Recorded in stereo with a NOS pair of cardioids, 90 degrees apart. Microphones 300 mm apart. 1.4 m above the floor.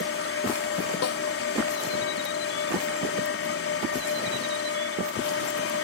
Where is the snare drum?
55° left.